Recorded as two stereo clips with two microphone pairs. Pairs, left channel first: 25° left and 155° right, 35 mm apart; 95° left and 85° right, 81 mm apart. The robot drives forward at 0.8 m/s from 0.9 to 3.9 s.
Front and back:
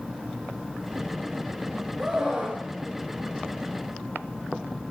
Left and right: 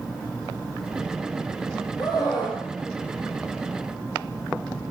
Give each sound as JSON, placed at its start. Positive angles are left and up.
{"t": 2.0, "sound": "a scream", "azimuth_deg": 125, "distance_m": 4.0}